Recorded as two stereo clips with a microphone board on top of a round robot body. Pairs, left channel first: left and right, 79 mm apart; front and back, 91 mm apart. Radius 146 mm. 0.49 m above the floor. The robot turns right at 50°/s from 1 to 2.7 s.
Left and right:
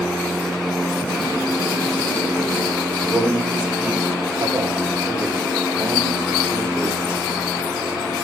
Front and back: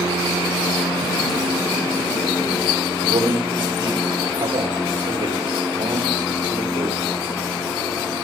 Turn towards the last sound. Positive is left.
turn(degrees=-165)